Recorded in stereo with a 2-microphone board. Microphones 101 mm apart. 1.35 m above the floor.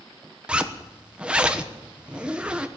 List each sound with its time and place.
0.5 s a zipper: 10° right (ahead or behind), 1.1 m